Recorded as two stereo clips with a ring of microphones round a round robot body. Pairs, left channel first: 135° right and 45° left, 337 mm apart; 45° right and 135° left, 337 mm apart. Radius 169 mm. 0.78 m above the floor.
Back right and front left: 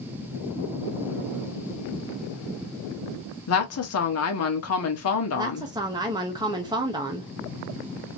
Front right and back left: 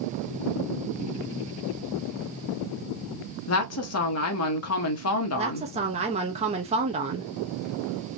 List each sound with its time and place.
3.5 s a woman speaking: 90° right, 1.4 m
5.3 s a woman speaking: 100° left, 1.0 m